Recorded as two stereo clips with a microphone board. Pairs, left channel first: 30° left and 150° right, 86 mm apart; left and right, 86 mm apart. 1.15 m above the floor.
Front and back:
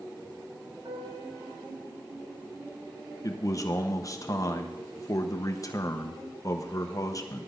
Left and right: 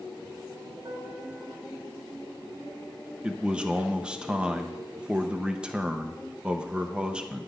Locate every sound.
0.8 s a piano: 125° right, 4 m
3.2 s a man speaking: 10° right, 0.8 m